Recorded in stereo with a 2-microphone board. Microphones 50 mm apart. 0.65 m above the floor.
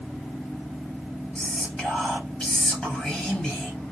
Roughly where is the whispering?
Centre.